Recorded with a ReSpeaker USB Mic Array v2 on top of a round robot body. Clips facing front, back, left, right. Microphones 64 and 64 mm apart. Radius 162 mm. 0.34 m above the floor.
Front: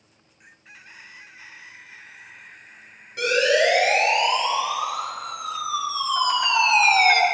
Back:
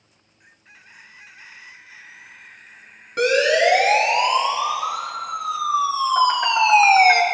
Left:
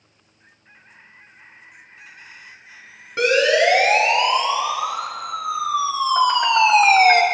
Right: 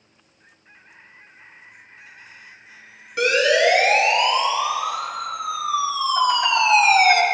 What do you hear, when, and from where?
3.2 s a siren: 150° left, 6.5 m; by 7.2 s 115° left, 1.9 m